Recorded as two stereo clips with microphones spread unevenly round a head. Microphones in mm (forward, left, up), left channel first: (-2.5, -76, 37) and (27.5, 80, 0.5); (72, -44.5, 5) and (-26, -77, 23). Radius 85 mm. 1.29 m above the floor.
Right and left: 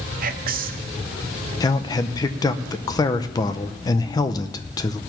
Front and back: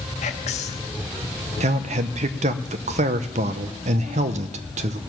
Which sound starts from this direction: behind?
A man speaking, at 1.6 s.